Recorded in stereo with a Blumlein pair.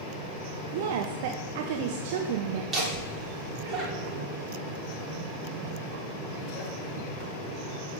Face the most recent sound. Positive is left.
turn(degrees=-20)